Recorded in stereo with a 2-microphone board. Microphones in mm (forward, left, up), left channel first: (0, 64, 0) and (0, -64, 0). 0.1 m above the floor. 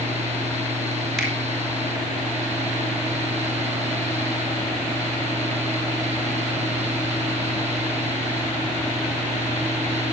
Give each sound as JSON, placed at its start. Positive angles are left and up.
{"t": 1.2, "sound": "a finger snap", "side_deg": 0, "distance_m": 5.5}